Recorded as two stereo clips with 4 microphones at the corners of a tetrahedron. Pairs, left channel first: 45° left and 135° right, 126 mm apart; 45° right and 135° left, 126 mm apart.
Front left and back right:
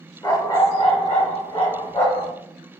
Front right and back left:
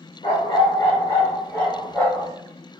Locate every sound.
0.2 s a dog barking: 10° right, 0.9 m; by 2.3 s 35° left, 2.5 m